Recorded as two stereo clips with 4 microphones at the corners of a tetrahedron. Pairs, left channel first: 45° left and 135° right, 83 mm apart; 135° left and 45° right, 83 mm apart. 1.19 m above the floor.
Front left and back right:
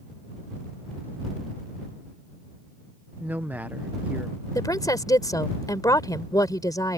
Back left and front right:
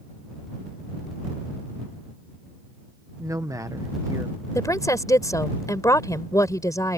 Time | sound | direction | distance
3.2 | a man speaking | 70° right | ?
4.5 | a woman speaking | 90° left | ?